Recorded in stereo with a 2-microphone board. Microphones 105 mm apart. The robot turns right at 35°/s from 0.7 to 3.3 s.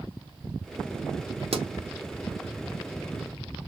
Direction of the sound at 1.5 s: 65° right (ahead or behind).